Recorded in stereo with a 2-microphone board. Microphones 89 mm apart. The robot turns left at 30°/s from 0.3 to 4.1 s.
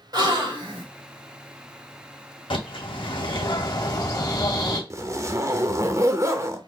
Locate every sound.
0.1 s a gasp: 50° right (ahead or behind), 1.5 m; by 0.8 s 65° right (ahead or behind), 1.5 m
2.5 s a bird: 90° left, 1.3 m; by 4.8 s 40° left, 1.3 m
4.9 s a zipper: 35° right (ahead or behind), 0.6 m